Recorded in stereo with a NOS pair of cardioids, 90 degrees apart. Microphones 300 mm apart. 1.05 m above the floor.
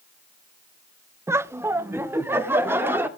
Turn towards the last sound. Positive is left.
turn(degrees=-5)